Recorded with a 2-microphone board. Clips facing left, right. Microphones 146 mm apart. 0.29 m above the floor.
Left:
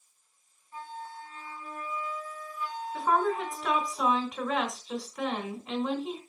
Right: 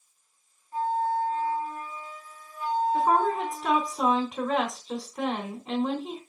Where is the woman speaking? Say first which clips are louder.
Even; 40° right (ahead or behind), 3 m.